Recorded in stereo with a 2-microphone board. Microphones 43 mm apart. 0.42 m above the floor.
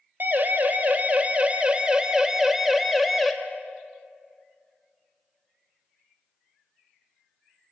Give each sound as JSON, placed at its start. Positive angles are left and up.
{"t": 0.2, "sound": "a siren", "side_deg": -50, "distance_m": 3.0}